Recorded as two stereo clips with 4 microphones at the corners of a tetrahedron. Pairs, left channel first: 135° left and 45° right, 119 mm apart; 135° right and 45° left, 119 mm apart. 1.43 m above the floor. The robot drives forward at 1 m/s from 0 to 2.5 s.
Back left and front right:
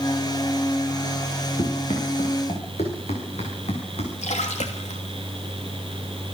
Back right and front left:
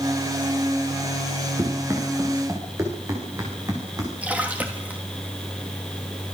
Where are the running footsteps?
105° left, 7 m.